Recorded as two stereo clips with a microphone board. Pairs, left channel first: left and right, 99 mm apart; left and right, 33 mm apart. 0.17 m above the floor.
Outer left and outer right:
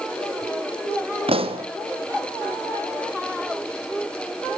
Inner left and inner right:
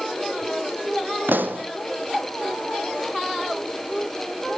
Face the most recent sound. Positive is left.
turn(degrees=-75)  # may be behind; listen again after turning